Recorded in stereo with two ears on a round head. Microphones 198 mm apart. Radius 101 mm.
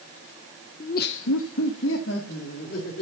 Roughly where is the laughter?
Left.